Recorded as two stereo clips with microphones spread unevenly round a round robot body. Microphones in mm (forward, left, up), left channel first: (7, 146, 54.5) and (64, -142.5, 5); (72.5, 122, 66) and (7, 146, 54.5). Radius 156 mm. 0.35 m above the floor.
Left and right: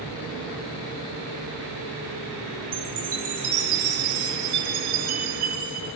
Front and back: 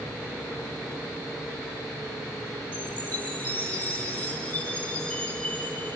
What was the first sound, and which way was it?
A chime, 100° right.